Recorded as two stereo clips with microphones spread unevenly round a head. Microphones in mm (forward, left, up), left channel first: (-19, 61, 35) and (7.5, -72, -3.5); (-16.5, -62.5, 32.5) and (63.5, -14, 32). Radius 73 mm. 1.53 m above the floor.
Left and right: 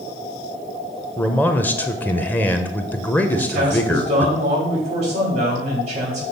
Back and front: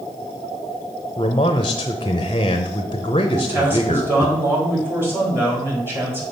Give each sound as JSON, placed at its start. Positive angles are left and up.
{"t": 1.2, "sound": "a man speaking", "azimuth_deg": 160, "distance_m": 0.6}
{"t": 3.3, "sound": "a man speaking", "azimuth_deg": -35, "distance_m": 4.0}